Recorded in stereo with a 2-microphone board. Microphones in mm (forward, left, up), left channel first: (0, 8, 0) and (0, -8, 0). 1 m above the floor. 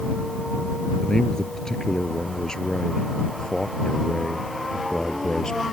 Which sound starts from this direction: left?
A man speaking, at 1.0 s.